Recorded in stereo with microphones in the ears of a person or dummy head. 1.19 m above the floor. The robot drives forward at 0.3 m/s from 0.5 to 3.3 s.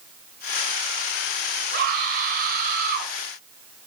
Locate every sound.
1.7 s a scream: 50° right (ahead or behind), 8.5 m